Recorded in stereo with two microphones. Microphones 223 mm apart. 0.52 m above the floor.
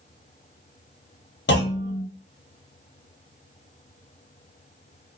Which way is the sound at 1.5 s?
55° left (ahead or behind).